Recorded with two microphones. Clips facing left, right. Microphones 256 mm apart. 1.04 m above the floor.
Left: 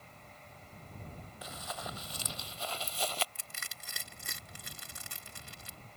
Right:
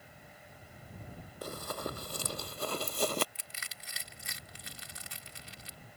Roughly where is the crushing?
Left.